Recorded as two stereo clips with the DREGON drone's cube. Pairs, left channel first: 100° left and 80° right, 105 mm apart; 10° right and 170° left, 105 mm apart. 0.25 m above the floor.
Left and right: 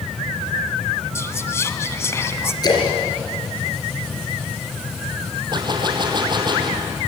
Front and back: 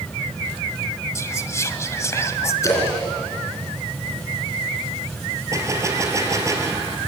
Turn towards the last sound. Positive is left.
turn(degrees=-130)